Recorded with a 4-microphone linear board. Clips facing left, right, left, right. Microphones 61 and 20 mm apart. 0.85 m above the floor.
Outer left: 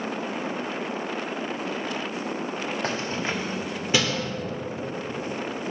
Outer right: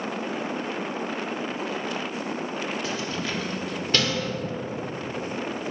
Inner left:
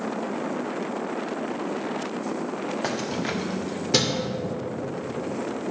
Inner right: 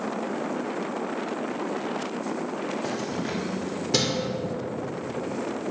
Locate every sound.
2.8 s keys jangling: 45° left (ahead or behind), 1.2 m; by 4.3 s 5° left (ahead or behind), 2.5 m